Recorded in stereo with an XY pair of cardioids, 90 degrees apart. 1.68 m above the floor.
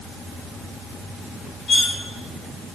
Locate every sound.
1.7 s cutlery clinking: 55° left, 4 m